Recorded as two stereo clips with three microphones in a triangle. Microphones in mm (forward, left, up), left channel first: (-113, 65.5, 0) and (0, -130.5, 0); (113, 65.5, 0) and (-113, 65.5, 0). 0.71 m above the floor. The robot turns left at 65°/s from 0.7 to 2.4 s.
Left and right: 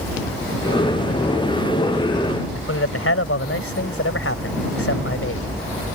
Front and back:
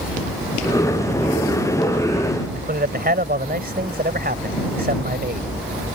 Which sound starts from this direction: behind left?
A man speaking, at 2.5 s.